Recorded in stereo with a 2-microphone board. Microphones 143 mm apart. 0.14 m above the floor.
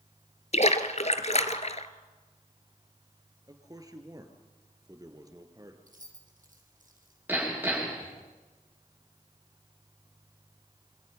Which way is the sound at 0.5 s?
50° left (ahead or behind).